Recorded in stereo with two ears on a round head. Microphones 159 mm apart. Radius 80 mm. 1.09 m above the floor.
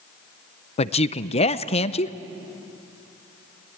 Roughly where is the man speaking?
Left.